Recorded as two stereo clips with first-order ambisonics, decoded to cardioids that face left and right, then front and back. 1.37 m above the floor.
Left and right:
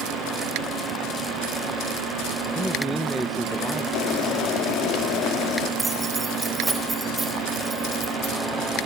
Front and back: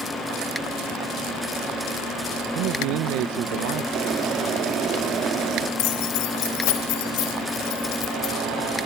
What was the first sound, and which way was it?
A man speaking, straight behind.